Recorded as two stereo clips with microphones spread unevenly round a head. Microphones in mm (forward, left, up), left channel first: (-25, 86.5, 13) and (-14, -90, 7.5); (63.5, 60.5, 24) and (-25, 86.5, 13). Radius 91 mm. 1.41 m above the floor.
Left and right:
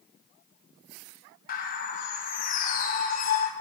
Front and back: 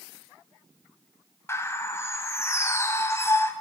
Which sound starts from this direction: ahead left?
A bird, at 1.5 s.